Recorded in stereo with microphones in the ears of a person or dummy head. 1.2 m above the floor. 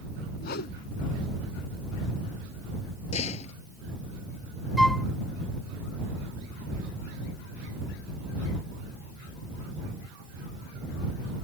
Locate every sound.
0.4 s a whoosh: 60° left (ahead or behind)
3.1 s a door slam: 40° left (ahead or behind)
4.8 s a flute: 5° left (ahead or behind)